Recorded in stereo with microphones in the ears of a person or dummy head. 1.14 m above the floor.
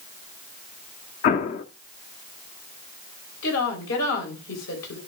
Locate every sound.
1.2 s an explosion: 45° left (ahead or behind), 0.9 m
3.4 s a woman speaking: 80° left, 6 m